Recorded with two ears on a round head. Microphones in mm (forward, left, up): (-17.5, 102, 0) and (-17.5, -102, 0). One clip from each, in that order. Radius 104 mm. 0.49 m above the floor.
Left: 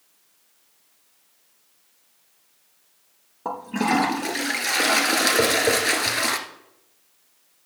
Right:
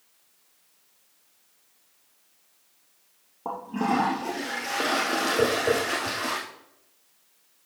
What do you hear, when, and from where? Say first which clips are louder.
3.5 s a toilet flushing: left 3 dB; 75° left (ahead or behind), 1.6 m
5.4 s tapping: left 3 dB; 65° left (ahead or behind), 3.5 m